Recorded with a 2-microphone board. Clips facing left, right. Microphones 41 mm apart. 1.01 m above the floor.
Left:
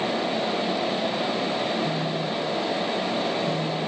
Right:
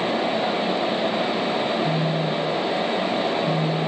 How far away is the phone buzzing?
About 2.5 m.